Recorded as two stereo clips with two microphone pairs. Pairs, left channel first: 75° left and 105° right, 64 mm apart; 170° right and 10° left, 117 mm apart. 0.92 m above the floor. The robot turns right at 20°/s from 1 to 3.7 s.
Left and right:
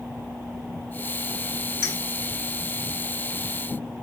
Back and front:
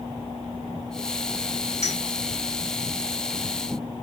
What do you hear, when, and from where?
1.8 s a clink: 30° left, 3 m